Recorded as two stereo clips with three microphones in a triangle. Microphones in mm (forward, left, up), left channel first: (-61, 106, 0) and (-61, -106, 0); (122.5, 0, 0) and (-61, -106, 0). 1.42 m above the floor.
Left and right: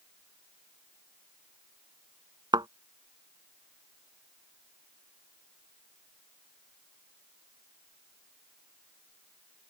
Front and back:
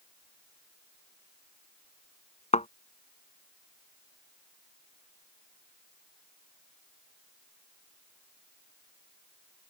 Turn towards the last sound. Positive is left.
turn(degrees=-25)